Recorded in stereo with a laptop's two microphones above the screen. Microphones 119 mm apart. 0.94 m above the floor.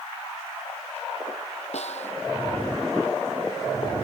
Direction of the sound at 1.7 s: 65° left (ahead or behind).